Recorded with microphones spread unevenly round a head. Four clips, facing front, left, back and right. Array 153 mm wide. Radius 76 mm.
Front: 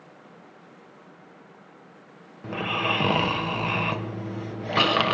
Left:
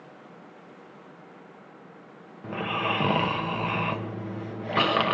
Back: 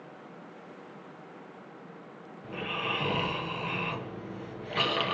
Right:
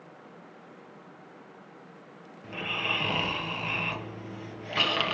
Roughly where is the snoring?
Ahead left.